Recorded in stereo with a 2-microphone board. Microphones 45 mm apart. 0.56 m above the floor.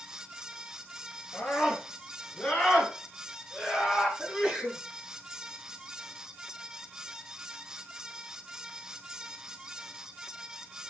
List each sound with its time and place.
1.3 s a scream: 25° left (ahead or behind), 6 m; by 4.1 s centre (ahead or behind), 8.5 m
4.2 s a sneeze: 5° right (ahead or behind), 7.5 m